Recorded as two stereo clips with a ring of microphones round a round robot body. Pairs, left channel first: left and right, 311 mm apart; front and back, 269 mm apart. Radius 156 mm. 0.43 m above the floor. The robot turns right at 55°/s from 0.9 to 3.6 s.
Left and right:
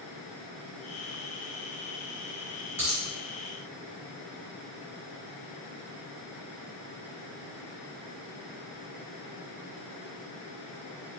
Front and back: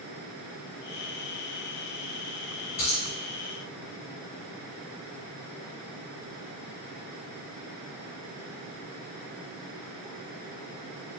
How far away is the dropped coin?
About 2.0 m.